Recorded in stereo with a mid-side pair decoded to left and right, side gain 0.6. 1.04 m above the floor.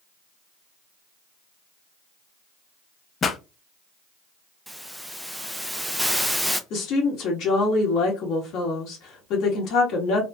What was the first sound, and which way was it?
A pop, 35° left.